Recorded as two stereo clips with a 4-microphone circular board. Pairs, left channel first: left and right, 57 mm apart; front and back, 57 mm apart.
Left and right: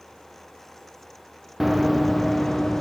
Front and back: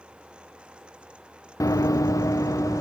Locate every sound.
1.6 s running footsteps: 5° right, 0.8 m; by 2.8 s 5° left, 1.5 m